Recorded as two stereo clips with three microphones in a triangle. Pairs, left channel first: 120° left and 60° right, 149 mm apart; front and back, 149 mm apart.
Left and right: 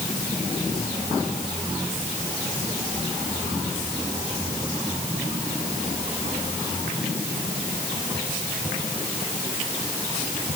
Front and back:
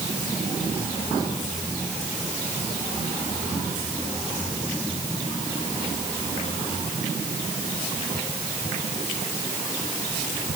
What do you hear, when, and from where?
Only background noise.